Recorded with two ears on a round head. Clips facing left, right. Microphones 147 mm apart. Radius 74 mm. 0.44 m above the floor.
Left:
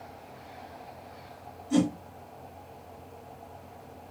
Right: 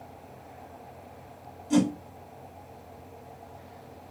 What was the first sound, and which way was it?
A whoosh, 60° right (ahead or behind).